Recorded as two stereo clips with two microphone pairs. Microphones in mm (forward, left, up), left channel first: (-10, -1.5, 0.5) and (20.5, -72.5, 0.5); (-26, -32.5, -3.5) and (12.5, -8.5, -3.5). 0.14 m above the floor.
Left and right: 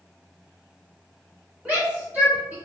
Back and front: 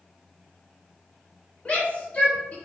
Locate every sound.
1.6 s a shout: 120° right, 1.8 m